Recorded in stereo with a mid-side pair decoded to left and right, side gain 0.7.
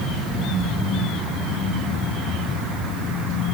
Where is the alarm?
I don't hear an alarm.